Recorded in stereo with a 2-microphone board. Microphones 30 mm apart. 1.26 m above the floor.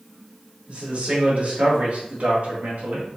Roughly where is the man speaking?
Right.